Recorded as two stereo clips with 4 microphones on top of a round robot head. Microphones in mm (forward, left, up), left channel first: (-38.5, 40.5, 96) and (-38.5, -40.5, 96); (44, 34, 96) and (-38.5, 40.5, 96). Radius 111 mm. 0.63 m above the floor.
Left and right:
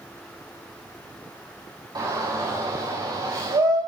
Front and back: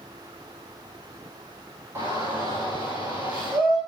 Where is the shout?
125° right, 3.5 m; by 3.8 s 110° right, 4.5 m.